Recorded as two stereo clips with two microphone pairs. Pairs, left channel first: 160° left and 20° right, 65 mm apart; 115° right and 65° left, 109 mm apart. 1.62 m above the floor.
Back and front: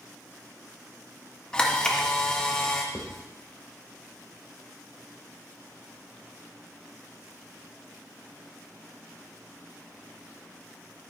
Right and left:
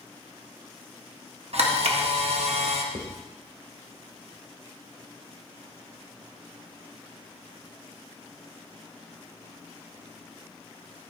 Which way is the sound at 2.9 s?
80° left.